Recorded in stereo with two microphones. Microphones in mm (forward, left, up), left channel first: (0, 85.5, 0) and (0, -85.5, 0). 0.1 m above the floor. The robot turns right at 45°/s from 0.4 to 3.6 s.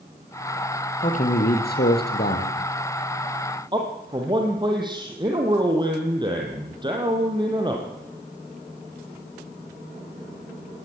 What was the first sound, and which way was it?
A man speaking, 50° left.